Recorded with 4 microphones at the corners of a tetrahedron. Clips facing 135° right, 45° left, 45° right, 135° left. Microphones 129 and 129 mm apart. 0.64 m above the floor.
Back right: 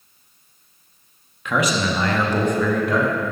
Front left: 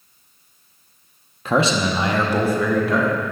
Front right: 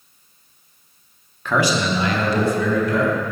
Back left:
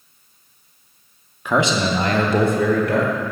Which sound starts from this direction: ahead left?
A man speaking, at 1.4 s.